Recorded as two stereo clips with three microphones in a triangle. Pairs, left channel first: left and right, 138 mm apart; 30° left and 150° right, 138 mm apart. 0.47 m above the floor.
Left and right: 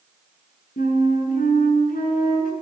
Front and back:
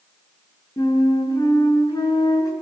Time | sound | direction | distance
0.8 | a flute | 95° left | 7.5 m